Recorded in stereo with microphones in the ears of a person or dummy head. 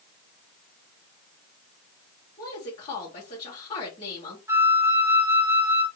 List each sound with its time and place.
2.4 s a woman speaking: 40° left (ahead or behind), 2.5 m
4.5 s a flute: 15° right (ahead or behind), 0.6 m